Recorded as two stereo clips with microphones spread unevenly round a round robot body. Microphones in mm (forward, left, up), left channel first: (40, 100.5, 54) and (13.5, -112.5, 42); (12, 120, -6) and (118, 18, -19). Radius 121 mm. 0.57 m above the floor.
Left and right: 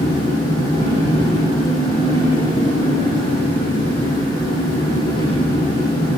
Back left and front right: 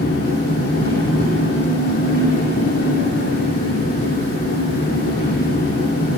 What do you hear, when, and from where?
0.0 s an engine running: 155° left, 9 m